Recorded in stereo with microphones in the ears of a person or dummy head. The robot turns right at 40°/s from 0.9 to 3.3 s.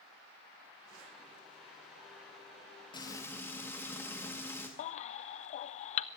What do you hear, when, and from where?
2.9 s frying: 30° left (ahead or behind), 1.9 m; by 4.7 s 15° left (ahead or behind), 1.9 m
4.8 s a baby crying: 45° left (ahead or behind), 0.5 m